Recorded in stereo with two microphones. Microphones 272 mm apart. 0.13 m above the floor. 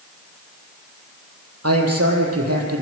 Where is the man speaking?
70° right (ahead or behind), 4 m.